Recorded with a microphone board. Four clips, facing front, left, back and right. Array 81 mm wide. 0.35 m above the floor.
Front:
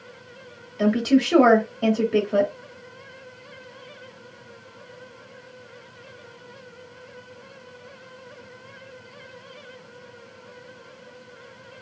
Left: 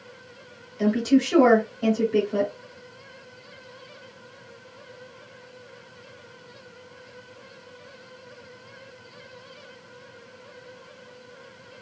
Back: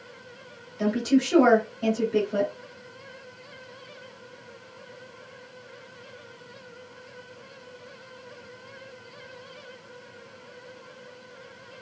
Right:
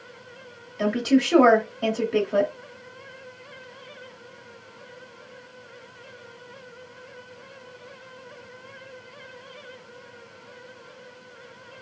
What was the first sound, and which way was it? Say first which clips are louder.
A woman speaking: left 1 dB, front 4 dB; 35° right.